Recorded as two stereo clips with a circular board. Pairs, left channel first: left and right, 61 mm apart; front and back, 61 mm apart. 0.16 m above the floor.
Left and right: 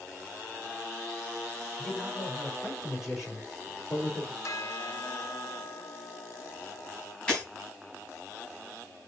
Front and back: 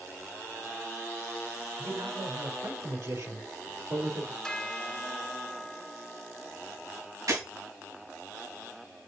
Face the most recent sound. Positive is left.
turn(degrees=175)